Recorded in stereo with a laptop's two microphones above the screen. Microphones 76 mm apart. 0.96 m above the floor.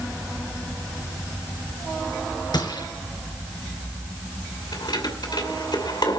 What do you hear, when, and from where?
2.5 s a gunshot: 70° left (ahead or behind), 3.5 m
4.7 s keys jangling: 75° left (ahead or behind), 2.5 m